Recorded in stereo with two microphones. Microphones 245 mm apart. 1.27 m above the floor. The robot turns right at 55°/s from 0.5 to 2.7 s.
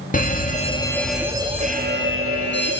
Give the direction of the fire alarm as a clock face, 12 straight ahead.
7 o'clock.